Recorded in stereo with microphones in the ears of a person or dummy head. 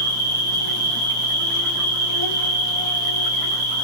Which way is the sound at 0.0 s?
85° right.